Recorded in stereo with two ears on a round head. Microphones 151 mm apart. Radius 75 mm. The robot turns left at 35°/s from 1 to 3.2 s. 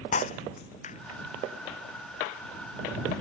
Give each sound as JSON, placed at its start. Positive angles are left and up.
{"t": 0.1, "sound": "breaking glass", "side_deg": 45}